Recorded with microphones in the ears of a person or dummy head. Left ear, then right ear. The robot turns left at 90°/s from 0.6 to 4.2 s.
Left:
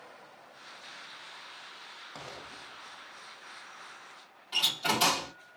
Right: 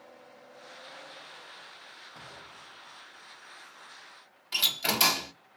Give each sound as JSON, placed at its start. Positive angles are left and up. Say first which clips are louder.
{"t": 2.1, "sound": "an explosion", "louder": "left 3 dB", "side_deg": 80, "distance_m": 1.2}
{"t": 4.5, "sound": "a door slam", "louder": "right 1 dB", "side_deg": -30, "distance_m": 1.0}